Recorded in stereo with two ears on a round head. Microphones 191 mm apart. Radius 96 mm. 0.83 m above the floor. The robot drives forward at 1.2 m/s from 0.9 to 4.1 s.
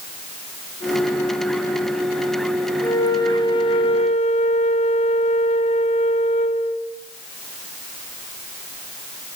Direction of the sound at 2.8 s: 15° left (ahead or behind).